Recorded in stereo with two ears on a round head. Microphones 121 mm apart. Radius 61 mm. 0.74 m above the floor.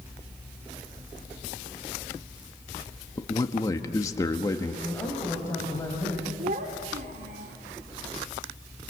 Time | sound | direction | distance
3.2 | a man speaking | 25° left (ahead or behind) | 1.3 m
4.8 | a man speaking | 20° left (ahead or behind) | 4.5 m
6.4 | a child speaking | 75° right (ahead or behind) | 1.7 m